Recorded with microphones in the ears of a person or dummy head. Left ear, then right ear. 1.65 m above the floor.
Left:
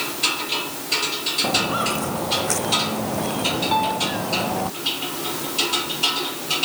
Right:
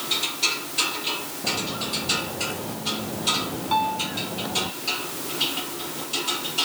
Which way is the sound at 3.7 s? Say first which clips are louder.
Right 1 dB; 10° right (ahead or behind).